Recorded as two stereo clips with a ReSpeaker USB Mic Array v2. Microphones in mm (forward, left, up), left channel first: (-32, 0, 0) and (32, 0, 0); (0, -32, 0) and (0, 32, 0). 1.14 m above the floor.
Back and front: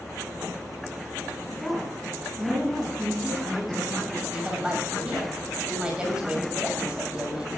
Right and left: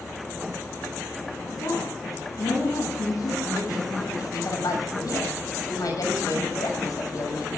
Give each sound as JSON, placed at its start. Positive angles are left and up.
{"t": 1.5, "sound": "a woman speaking", "azimuth_deg": -90, "distance_m": 9.5}
{"t": 4.2, "sound": "a woman speaking", "azimuth_deg": -75, "distance_m": 6.5}